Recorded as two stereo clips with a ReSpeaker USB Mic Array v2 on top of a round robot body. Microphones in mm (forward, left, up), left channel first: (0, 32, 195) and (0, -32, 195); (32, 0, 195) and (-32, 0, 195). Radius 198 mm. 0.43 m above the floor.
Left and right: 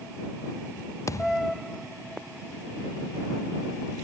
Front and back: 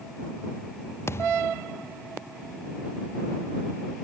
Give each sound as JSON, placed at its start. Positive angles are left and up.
{"t": 1.1, "sound": "a thud", "azimuth_deg": 50}